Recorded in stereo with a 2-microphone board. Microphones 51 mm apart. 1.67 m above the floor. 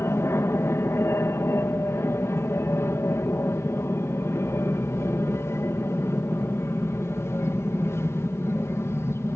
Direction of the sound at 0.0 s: 60° left (ahead or behind).